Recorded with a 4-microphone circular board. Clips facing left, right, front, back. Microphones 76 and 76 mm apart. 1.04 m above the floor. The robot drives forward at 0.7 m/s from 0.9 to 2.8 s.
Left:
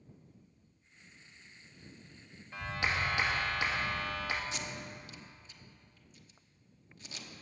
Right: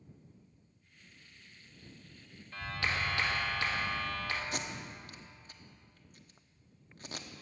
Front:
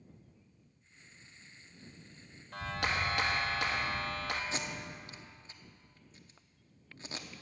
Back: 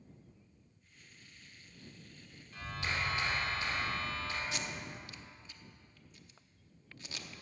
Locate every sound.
2.5 s a clap: 15° left, 1.5 m
4.5 s tape being pulled: 55° right, 0.8 m